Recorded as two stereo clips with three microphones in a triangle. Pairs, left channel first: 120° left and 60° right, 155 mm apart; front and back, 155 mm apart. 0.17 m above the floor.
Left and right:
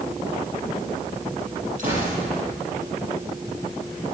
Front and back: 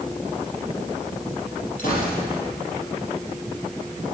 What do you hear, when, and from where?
1.8 s a gunshot: 25° right, 6 m